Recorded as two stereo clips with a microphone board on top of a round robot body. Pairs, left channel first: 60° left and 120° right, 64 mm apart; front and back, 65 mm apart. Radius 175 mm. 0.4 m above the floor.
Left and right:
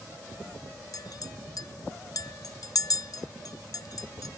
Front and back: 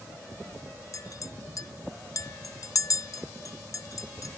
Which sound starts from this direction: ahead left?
A clink, at 0.9 s.